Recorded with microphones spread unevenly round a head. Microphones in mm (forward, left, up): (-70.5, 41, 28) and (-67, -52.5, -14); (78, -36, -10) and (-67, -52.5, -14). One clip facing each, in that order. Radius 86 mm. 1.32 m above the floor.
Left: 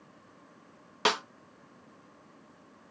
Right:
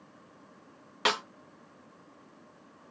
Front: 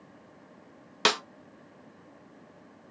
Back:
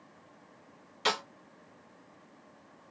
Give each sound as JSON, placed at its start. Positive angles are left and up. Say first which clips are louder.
{"t": 1.1, "sound": "a snare drum", "louder": "left 1 dB, front 4 dB", "azimuth_deg": 25, "distance_m": 0.6}